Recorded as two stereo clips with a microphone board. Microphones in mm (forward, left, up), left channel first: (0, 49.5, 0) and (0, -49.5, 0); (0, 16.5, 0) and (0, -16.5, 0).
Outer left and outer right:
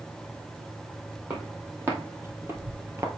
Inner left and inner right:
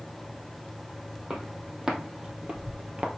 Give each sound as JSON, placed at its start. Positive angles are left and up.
{"t": 1.3, "sound": "footsteps", "side_deg": -20, "distance_m": 2.5}